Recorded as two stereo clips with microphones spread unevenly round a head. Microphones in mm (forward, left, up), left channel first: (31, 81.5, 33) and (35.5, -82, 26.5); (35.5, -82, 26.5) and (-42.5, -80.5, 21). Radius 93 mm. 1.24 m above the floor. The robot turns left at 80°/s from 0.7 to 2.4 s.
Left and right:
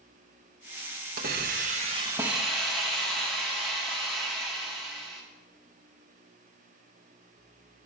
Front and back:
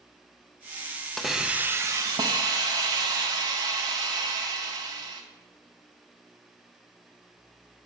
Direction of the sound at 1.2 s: 85° right.